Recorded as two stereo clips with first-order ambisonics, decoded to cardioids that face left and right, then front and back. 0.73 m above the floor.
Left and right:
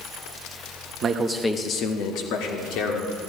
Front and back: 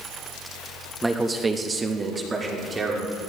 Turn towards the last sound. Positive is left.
turn(degrees=105)